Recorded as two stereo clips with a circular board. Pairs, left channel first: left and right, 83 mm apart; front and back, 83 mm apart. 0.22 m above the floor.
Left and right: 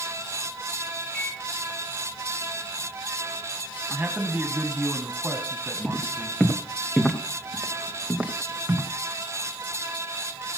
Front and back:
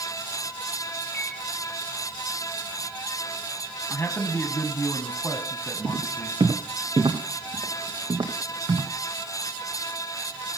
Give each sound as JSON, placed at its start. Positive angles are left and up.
{"t": 1.1, "sound": "a microwave", "azimuth_deg": 40, "distance_m": 0.8}
{"t": 3.9, "sound": "a man speaking", "azimuth_deg": -35, "distance_m": 1.4}
{"t": 5.8, "sound": "footsteps", "azimuth_deg": 160, "distance_m": 3.5}